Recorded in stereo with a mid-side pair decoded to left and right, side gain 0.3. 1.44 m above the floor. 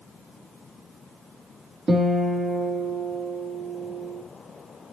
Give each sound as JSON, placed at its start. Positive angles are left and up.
{"t": 1.9, "sound": "a guitar", "azimuth_deg": -45, "distance_m": 3.0}